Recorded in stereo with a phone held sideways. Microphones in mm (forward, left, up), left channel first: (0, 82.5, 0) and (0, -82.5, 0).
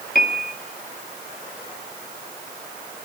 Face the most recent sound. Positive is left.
turn(degrees=65)  # may be behind; listen again after turning